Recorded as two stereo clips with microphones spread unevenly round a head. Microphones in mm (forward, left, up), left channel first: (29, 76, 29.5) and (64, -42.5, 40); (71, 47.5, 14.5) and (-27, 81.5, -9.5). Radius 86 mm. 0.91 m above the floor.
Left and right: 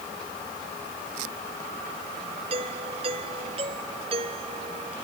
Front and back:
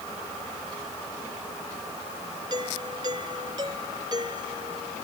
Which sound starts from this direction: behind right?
A doorbell, at 2.5 s.